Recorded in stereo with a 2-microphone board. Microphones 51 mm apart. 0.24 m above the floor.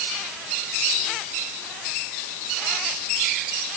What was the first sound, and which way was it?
Only background noise.